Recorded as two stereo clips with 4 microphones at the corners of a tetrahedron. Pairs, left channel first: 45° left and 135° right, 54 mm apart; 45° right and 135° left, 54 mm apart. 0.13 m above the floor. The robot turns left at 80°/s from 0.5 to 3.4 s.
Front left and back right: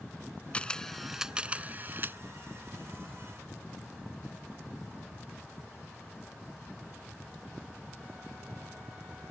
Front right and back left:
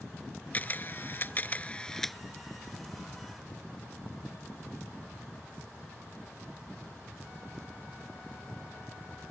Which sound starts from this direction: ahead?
A camera shutter, at 0.5 s.